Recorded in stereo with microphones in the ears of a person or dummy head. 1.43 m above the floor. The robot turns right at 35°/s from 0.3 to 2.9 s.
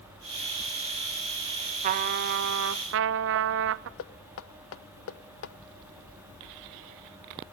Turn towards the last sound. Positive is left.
turn(degrees=85)